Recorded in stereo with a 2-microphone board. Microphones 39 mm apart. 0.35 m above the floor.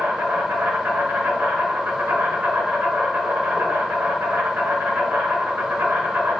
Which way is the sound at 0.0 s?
65° right (ahead or behind).